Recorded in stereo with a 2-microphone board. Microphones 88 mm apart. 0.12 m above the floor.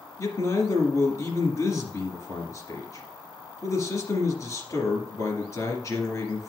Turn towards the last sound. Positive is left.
turn(degrees=35)  # may be behind; listen again after turning